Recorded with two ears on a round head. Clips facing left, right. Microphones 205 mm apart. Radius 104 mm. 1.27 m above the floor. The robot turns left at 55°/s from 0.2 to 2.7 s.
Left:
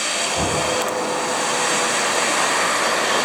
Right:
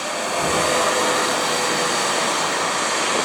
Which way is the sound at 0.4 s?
75° left (ahead or behind).